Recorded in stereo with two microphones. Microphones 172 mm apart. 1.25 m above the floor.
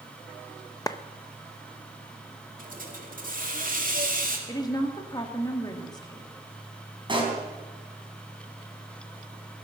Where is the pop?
30° right (ahead or behind), 4 m.